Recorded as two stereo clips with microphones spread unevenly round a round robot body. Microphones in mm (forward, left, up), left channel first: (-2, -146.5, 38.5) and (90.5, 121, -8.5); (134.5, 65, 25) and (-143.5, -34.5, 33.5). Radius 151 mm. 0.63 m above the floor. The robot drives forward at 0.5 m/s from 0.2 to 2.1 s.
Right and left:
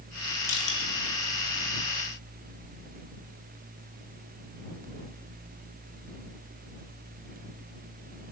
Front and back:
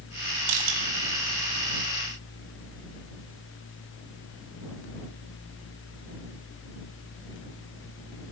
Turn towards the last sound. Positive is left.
turn(degrees=180)